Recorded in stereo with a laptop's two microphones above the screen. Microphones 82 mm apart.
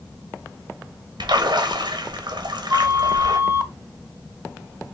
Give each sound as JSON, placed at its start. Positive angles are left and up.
{"t": 1.2, "sound": "a splash", "side_deg": -60, "distance_m": 0.9}
{"t": 2.7, "sound": "a flute", "side_deg": -30, "distance_m": 0.8}